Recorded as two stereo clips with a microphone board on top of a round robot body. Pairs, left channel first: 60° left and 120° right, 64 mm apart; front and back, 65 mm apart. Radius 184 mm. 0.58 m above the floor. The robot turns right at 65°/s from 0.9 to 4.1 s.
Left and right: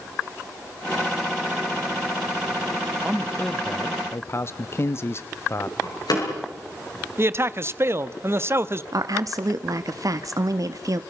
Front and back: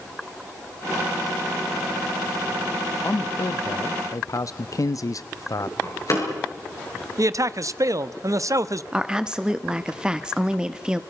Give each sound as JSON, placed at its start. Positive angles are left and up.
{"t": 3.0, "sound": "a man speaking", "azimuth_deg": -50, "distance_m": 0.9}
{"t": 5.8, "sound": "a door slam", "azimuth_deg": 40, "distance_m": 9.5}
{"t": 7.2, "sound": "a man speaking", "azimuth_deg": -165, "distance_m": 1.1}
{"t": 8.9, "sound": "a woman speaking", "azimuth_deg": -105, "distance_m": 1.3}